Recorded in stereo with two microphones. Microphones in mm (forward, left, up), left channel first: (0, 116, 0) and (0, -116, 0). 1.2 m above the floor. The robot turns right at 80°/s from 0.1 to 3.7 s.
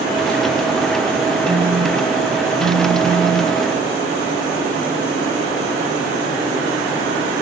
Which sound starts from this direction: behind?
A phone buzzing, at 1.5 s.